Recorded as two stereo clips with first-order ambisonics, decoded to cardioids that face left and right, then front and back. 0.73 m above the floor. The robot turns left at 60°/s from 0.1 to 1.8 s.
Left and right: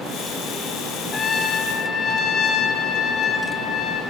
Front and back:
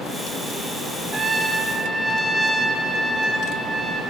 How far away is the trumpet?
About 0.8 m.